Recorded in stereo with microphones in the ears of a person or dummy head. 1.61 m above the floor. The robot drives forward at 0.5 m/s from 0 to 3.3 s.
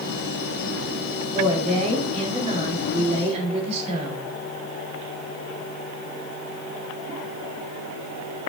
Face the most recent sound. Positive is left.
turn(degrees=-35)  # may be behind; listen again after turning